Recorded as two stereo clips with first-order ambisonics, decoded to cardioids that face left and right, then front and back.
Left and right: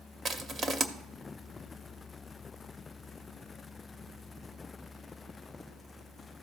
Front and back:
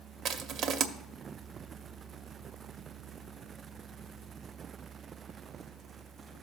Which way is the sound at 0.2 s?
150° right.